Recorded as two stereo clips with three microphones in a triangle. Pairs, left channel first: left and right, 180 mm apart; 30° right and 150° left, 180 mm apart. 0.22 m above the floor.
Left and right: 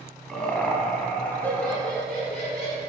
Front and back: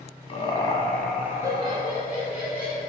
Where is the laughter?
5° left, 1.3 m; by 2.8 s 175° left, 2 m.